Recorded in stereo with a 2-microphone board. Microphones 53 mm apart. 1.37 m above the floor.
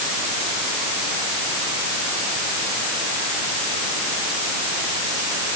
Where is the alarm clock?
I don't hear an alarm clock.